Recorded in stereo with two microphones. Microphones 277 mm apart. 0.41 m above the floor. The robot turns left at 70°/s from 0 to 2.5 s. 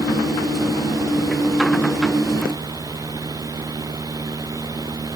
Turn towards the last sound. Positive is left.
No sound to turn to.